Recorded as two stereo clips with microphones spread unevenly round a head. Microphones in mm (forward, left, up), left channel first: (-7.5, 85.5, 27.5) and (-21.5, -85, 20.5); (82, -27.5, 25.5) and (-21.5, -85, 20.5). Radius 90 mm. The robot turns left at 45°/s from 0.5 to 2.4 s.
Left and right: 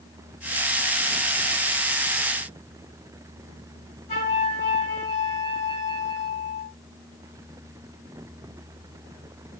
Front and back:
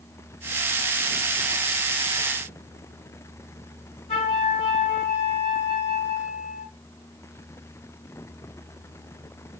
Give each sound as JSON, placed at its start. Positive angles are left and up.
{"t": 4.1, "sound": "a flute", "azimuth_deg": 40, "distance_m": 2.0}